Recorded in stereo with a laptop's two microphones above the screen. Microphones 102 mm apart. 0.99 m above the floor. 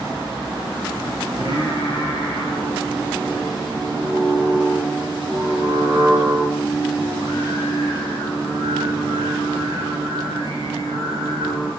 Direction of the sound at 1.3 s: 60° left (ahead or behind).